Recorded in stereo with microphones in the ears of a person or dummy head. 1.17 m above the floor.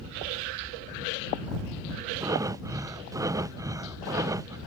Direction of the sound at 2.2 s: 15° right (ahead or behind).